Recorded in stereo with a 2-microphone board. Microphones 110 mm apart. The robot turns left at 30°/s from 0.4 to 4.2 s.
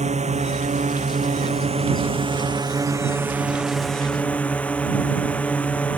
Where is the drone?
80° right; by 6.0 s 170° left.